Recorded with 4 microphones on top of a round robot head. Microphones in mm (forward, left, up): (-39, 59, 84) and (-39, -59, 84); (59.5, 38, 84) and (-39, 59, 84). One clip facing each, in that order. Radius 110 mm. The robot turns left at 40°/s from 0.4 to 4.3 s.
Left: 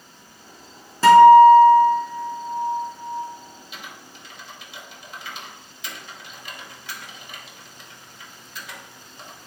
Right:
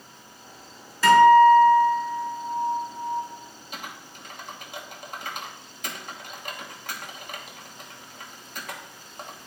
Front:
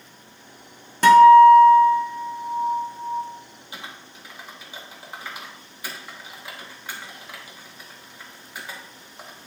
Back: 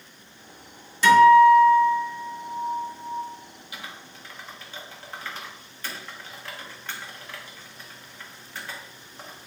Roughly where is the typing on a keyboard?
Ahead right.